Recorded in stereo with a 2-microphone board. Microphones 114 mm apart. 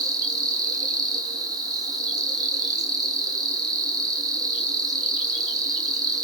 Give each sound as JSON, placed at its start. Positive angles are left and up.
{"t": 0.0, "sound": "an insect", "side_deg": -35, "distance_m": 1.3}